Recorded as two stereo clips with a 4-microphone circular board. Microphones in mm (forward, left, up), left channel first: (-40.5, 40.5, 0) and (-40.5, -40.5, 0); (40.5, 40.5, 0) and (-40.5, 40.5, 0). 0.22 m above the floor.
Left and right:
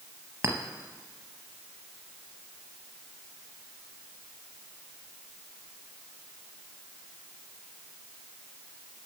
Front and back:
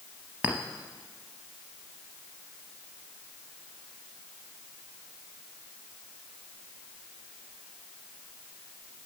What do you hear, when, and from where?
0.4 s a clink: 120° right, 0.6 m